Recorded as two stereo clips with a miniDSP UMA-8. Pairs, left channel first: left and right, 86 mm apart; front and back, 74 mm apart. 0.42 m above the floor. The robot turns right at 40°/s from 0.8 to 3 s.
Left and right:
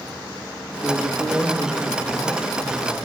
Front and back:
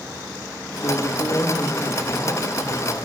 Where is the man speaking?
20° left, 6.5 m; by 3.0 s 105° left, 6.5 m.